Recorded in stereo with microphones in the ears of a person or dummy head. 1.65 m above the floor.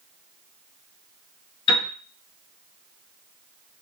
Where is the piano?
40° left (ahead or behind), 3 m.